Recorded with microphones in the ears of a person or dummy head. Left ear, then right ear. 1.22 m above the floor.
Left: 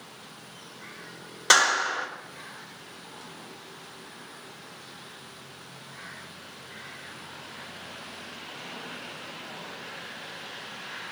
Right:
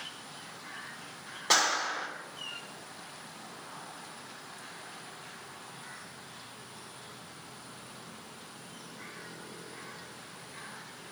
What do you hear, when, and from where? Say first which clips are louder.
1.5 s a clap: left 6 dB; 50° left (ahead or behind), 3.5 m